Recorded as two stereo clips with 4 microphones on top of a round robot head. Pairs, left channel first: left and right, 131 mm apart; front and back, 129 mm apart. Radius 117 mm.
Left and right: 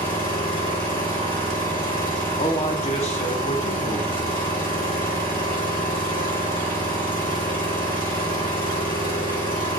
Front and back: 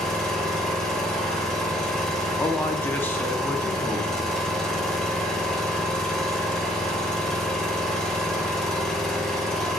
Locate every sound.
0.0 s an engine running: 85° left, 1.7 m
2.4 s a man speaking: 70° left, 0.6 m